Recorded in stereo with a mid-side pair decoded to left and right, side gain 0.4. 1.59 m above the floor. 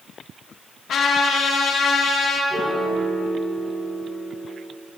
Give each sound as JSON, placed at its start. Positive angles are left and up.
{"t": 0.9, "sound": "a trumpet", "azimuth_deg": 70, "distance_m": 1.6}
{"t": 2.5, "sound": "a piano", "azimuth_deg": -35, "distance_m": 2.0}